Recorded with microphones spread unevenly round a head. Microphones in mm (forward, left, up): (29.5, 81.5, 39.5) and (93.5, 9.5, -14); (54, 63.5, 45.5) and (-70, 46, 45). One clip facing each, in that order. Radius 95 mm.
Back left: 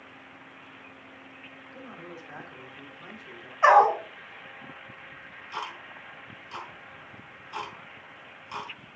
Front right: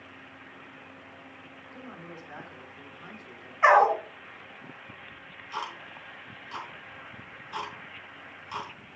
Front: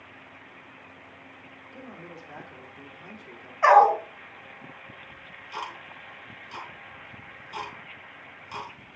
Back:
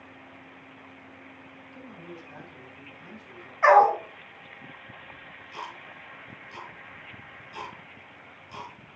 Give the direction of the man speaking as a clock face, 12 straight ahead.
10 o'clock.